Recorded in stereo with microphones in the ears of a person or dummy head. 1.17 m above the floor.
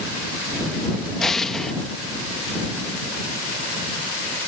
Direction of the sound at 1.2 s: 5° left (ahead or behind).